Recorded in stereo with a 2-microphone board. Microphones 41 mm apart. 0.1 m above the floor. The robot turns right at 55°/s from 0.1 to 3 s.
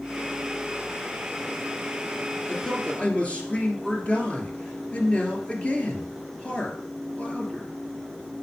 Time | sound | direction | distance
2.5 | a man speaking | 15° left (ahead or behind) | 2 m